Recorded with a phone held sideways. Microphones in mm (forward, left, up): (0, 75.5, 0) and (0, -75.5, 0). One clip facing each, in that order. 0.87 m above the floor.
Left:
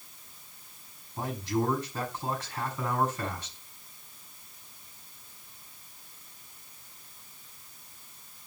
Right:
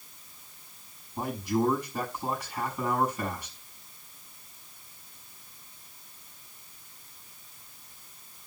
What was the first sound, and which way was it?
A man speaking, 10° right (ahead or behind).